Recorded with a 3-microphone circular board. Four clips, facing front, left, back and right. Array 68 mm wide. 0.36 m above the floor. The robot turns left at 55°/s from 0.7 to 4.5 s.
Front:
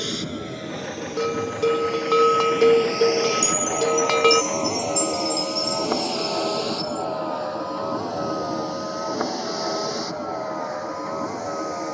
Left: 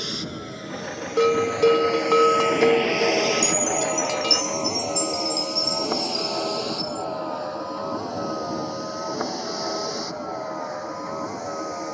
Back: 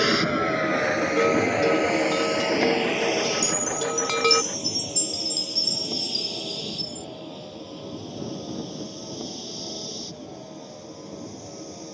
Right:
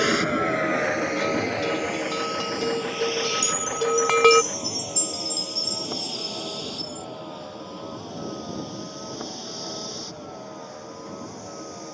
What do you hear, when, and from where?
0.0 s a vehicle: 130° right; by 11.9 s 30° left
1.2 s a bell: 105° left; by 4.4 s 75° right
3.4 s a chime: 145° right; by 7.1 s 155° left